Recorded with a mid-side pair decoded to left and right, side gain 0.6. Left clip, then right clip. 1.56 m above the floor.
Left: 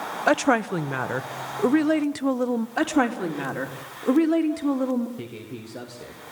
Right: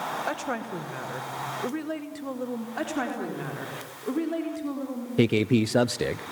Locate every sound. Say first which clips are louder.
0.3 s a woman speaking: left 10 dB; 50° left, 1.2 m
2.8 s a woman speaking: left 7 dB; 40° left, 3.5 m
5.2 s a man speaking: right 15 dB; 65° right, 0.6 m